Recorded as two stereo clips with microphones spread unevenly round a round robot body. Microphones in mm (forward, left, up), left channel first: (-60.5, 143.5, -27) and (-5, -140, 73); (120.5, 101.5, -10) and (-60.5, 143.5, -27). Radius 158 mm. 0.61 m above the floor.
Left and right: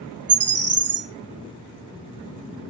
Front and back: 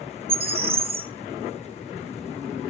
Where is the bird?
130° right, 1.6 m.